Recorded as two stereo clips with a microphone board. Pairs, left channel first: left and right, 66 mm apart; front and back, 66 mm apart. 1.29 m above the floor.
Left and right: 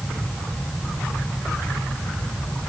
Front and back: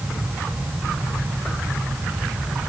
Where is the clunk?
I don't hear a clunk.